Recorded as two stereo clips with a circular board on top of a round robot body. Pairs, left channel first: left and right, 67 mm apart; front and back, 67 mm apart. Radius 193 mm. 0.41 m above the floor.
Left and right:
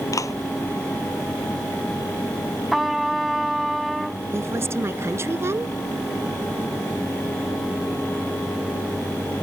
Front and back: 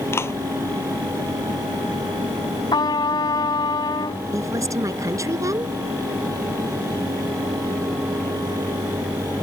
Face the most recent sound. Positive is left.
turn(degrees=-140)